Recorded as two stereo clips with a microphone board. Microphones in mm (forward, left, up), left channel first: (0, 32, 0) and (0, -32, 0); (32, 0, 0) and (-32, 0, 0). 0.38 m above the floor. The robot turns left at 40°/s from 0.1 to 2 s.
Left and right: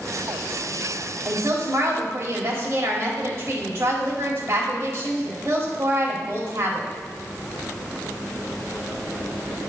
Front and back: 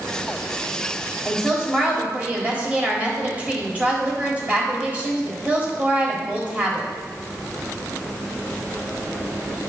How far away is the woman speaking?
About 1.9 m.